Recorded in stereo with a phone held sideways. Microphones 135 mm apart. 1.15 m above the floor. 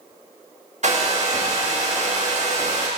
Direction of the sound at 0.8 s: 55° right (ahead or behind).